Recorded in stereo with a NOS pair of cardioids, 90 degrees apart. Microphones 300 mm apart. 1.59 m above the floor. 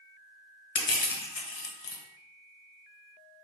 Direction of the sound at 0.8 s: 50° left.